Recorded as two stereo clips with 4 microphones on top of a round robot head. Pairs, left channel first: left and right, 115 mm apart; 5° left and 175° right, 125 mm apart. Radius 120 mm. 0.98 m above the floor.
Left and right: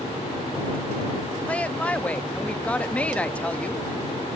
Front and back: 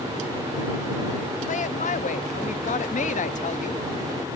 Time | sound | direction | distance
1.5 | a woman speaking | 10° left | ?